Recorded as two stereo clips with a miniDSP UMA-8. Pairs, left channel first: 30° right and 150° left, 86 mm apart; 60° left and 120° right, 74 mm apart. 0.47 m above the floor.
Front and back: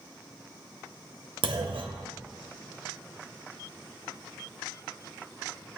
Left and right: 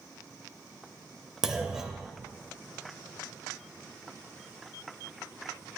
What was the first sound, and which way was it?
A clunk, 160° left.